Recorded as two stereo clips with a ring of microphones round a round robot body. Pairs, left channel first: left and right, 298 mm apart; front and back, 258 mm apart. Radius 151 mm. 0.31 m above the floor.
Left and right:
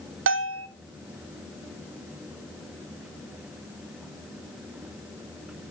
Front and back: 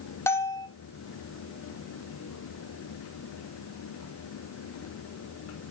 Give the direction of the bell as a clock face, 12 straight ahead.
3 o'clock.